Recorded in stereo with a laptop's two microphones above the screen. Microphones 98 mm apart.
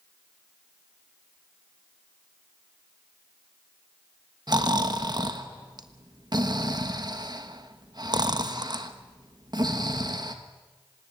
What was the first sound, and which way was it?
Snoring, 50° right (ahead or behind).